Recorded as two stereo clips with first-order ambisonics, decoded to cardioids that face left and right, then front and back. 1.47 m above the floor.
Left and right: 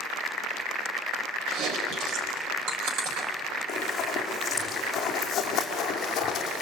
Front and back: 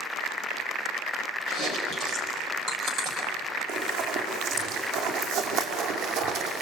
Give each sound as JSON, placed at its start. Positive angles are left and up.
{"t": 1.5, "sound": "chewing", "azimuth_deg": -130, "distance_m": 4.0}
{"t": 3.7, "sound": "running footsteps", "azimuth_deg": 160, "distance_m": 5.5}